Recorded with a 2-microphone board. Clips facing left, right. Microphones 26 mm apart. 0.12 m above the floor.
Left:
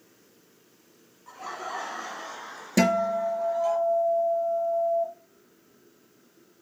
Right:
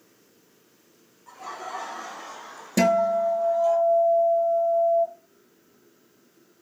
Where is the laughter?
15° left (ahead or behind), 1.3 m; by 3.8 s 35° left (ahead or behind), 2 m.